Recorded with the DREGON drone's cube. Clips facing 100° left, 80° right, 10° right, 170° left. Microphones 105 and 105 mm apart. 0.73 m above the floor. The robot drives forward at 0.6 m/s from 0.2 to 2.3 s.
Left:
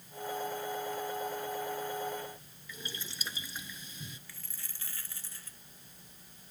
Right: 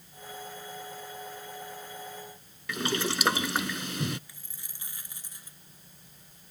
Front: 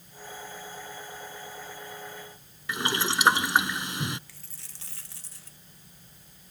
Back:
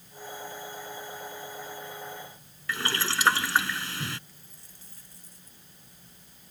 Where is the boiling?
85° right.